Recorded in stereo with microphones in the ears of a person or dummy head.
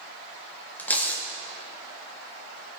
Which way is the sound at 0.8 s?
15° left (ahead or behind).